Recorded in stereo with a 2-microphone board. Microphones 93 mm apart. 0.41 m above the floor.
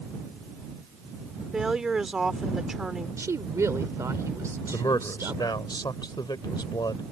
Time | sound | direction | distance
1.5 | a woman speaking | 5° right (ahead or behind) | ?
3.2 | a woman speaking | 35° right (ahead or behind) | ?
4.7 | a man speaking | 50° left (ahead or behind) | ?